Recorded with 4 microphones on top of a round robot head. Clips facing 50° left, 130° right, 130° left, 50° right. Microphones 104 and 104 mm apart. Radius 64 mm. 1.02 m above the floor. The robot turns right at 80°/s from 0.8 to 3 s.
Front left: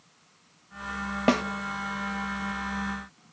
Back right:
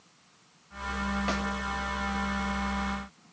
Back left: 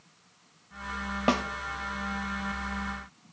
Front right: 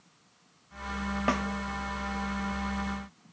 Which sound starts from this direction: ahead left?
A snare drum, at 1.3 s.